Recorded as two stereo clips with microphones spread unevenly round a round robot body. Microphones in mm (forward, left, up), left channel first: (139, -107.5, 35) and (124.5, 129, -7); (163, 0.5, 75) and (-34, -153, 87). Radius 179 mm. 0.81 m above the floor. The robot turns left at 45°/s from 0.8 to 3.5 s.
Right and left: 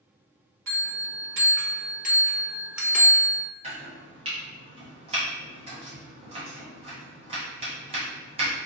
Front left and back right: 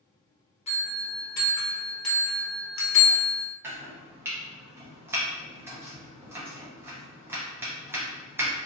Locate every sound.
0.7 s a bell: 100° left, 1.2 m; by 3.4 s 15° right, 1.2 m
3.6 s chopping: 135° left, 0.8 m